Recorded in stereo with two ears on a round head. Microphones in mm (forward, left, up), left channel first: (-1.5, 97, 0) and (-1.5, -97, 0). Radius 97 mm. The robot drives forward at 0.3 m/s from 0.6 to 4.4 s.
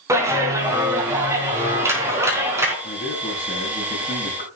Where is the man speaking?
35° left (ahead or behind), 8 m.